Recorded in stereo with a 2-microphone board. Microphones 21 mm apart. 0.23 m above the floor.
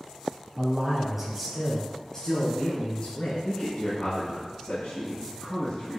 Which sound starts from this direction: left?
A man speaking, at 3.4 s.